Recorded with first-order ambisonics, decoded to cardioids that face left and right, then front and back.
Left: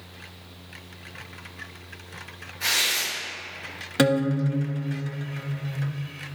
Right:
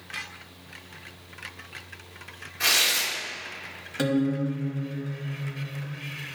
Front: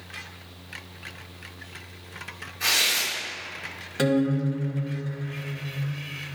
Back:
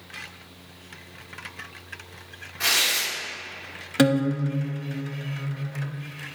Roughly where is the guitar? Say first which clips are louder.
Left 4 dB, back 2 dB; behind left.